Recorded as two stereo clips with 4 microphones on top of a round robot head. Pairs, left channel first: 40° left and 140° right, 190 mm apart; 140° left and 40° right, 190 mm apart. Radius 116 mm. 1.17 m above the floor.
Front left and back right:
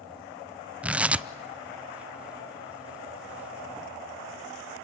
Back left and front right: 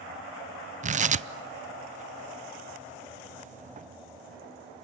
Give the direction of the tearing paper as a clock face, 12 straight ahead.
2 o'clock.